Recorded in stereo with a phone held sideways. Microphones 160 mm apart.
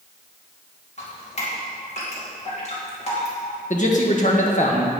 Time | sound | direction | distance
1.0 | dripping | 45° left (ahead or behind) | 3 m
3.7 | a man speaking | 50° left (ahead or behind) | 1.7 m